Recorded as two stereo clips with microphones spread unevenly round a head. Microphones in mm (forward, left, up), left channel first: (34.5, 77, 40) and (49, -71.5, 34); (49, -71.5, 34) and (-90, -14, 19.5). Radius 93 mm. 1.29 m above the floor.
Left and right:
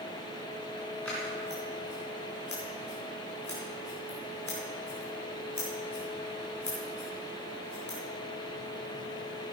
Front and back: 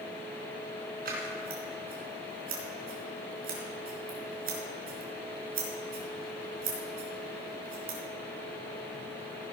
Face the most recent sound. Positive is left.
turn(degrees=175)